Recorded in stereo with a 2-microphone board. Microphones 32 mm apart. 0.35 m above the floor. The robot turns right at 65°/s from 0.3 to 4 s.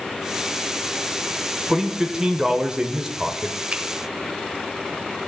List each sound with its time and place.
1.7 s a man speaking: 15° right (ahead or behind), 0.9 m; by 3.6 s 10° right (ahead or behind), 0.9 m
3.7 s a finger snap: 40° right (ahead or behind), 1.0 m; by 3.8 s 45° right (ahead or behind), 1.0 m